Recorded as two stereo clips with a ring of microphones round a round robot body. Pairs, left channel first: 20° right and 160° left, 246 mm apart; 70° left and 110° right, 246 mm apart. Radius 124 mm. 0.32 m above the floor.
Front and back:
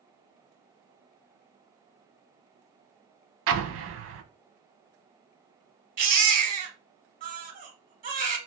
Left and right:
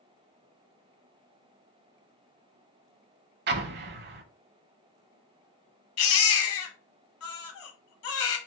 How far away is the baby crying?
About 1.0 m.